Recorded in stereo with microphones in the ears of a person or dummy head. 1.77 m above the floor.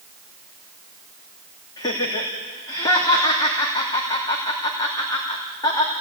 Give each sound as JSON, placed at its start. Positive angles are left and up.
{"t": 1.8, "sound": "laughter", "side_deg": 20, "distance_m": 3.0}